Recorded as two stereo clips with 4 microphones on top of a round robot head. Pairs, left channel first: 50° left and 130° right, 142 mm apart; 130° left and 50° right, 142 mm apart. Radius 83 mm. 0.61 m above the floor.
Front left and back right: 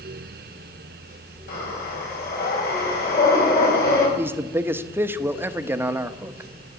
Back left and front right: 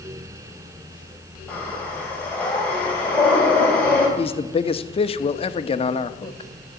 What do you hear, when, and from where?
1.5 s breathing: 50° left, 5.5 m
4.2 s a man speaking: 160° left, 1.0 m